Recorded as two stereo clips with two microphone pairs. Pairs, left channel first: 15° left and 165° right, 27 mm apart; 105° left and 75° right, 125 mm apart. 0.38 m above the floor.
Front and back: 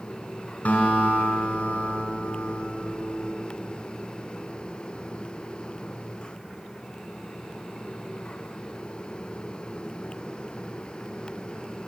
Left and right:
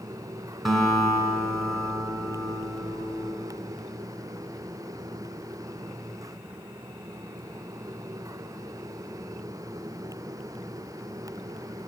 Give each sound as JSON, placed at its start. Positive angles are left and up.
{"t": 0.7, "sound": "a guitar", "azimuth_deg": 15, "distance_m": 1.6}